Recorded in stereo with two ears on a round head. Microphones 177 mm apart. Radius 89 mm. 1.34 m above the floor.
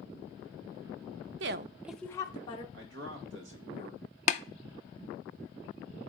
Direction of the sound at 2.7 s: 65° right (ahead or behind).